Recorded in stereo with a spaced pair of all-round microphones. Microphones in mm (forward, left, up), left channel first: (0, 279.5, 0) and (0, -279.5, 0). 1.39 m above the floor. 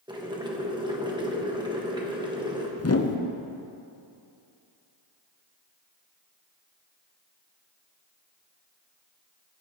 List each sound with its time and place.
0.1 s boiling: 10° right (ahead or behind), 1.2 m
2.8 s a whoosh: 30° left (ahead or behind), 0.6 m